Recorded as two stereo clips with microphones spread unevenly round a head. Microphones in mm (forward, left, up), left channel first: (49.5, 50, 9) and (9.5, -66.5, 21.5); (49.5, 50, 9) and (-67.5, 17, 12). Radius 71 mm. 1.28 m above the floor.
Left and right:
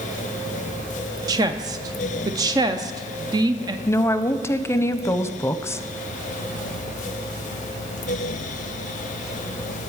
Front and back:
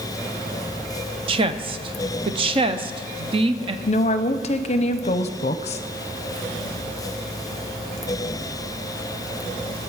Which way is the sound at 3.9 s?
10° left.